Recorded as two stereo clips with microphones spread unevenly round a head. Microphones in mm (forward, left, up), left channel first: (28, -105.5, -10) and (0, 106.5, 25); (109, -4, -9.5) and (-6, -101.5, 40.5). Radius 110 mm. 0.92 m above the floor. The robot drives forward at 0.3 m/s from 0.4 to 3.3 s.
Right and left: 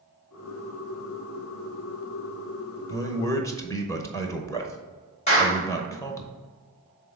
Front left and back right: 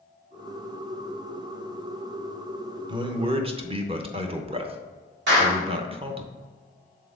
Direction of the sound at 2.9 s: 70° right.